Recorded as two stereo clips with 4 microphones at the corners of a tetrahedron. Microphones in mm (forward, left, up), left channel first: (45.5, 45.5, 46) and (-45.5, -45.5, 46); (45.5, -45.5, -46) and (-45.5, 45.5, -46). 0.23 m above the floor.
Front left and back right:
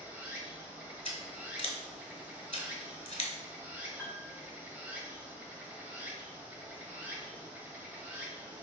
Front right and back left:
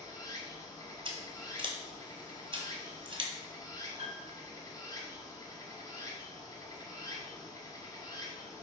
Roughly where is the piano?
Behind left.